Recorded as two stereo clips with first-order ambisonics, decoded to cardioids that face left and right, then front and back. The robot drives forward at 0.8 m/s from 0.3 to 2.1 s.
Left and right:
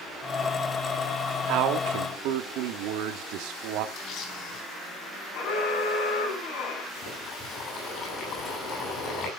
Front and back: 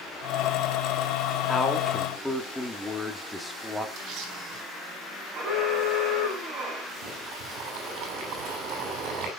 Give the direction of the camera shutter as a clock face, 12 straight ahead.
7 o'clock.